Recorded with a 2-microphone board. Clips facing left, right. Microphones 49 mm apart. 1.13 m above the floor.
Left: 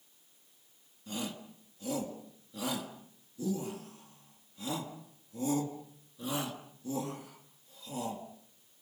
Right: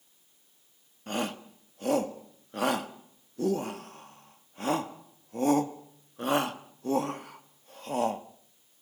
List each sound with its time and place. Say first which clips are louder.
1.1 s a shout: right 7 dB; 55° right (ahead or behind), 1.5 m